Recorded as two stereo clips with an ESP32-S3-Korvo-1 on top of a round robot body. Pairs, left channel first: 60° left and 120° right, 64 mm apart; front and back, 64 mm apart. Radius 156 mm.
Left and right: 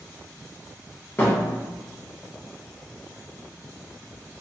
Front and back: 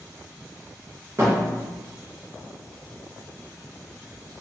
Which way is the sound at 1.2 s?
125° left.